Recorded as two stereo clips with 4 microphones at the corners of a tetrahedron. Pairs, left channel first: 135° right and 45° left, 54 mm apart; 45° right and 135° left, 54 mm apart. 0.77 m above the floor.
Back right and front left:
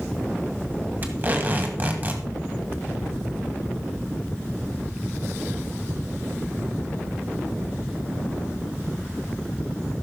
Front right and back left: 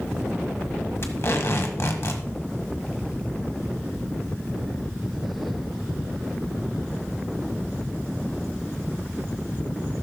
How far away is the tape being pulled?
About 1.6 m.